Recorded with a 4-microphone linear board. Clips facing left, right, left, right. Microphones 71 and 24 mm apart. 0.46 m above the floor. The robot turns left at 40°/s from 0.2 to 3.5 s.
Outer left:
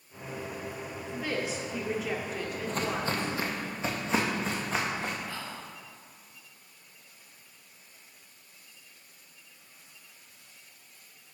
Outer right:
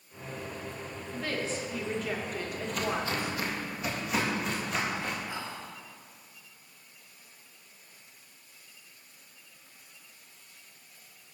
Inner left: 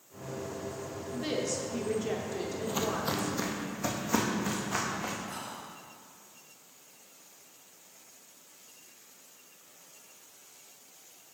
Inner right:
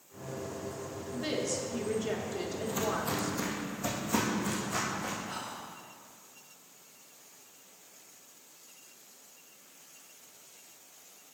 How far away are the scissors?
I don't hear scissors.